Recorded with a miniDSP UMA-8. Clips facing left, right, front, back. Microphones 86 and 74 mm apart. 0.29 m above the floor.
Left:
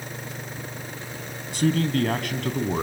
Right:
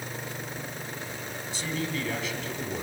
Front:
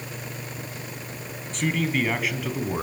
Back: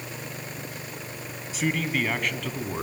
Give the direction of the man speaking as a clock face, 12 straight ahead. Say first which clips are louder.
Left 10 dB, front 2 dB; 9 o'clock.